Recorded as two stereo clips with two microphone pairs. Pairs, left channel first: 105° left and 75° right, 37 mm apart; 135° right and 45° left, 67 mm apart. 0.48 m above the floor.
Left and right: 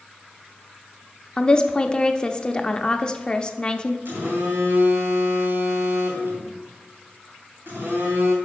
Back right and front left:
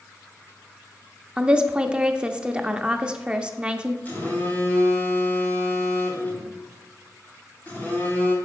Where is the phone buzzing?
75° right, 3.5 m.